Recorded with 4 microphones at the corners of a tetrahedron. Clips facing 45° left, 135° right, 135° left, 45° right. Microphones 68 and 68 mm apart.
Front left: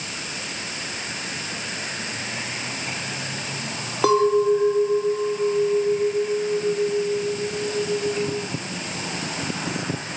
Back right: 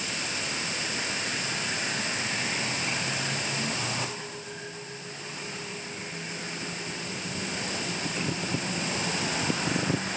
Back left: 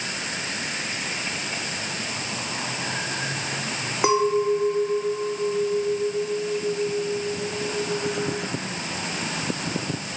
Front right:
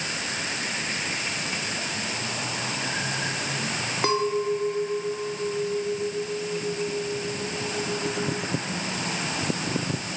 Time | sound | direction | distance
4.0 | a clink | 60° left | ?